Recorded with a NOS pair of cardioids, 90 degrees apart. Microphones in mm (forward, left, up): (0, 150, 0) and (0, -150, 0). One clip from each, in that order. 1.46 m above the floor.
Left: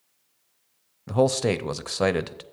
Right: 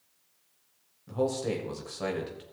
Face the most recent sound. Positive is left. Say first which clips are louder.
# left 8 dB
turn(degrees=70)